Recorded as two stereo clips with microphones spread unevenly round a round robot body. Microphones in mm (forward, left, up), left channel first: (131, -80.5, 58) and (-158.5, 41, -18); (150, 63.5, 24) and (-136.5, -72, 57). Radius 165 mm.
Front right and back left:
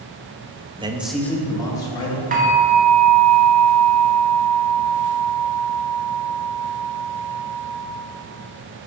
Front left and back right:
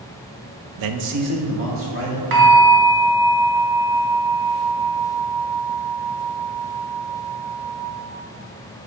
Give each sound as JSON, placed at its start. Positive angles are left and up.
{"t": 0.8, "sound": "a man speaking", "azimuth_deg": -140, "distance_m": 0.6}
{"t": 2.3, "sound": "a bell", "azimuth_deg": -150, "distance_m": 1.4}